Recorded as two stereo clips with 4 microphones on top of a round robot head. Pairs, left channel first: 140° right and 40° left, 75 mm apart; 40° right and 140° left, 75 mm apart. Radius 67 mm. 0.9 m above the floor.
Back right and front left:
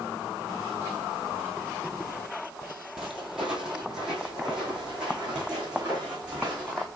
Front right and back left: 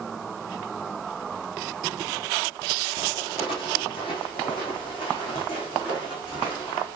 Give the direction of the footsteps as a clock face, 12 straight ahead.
2 o'clock.